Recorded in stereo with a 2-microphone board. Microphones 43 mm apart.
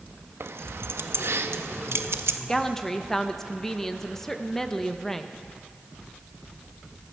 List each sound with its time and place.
0.4 s keys jangling: 75° right (ahead or behind), 0.5 m
2.5 s a woman speaking: 10° left (ahead or behind), 0.7 m